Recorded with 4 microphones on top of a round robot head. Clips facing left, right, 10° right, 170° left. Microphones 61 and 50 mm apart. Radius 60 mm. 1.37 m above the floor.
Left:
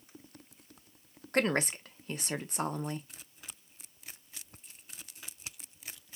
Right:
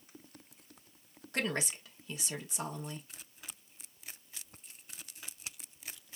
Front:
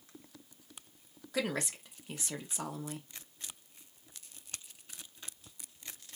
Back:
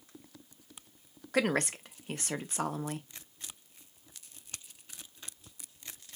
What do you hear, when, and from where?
1.3 s a woman speaking: 135° left, 0.8 m